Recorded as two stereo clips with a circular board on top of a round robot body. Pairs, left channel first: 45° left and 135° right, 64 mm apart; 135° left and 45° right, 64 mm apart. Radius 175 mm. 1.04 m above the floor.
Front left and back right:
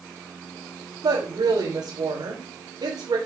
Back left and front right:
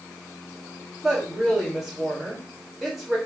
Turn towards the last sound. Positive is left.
turn(degrees=-135)